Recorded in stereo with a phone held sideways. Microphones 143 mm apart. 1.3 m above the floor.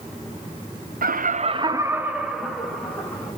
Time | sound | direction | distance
1.0 | laughter | 80° right | 0.6 m